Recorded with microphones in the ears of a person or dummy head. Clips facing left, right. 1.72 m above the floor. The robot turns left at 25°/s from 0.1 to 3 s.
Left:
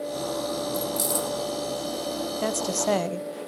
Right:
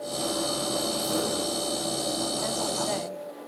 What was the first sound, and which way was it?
Keys jangling, 45° left (ahead or behind).